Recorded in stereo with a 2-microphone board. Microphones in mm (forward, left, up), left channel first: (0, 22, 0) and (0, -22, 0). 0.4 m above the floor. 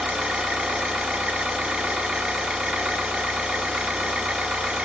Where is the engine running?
10° right (ahead or behind), 1.2 m.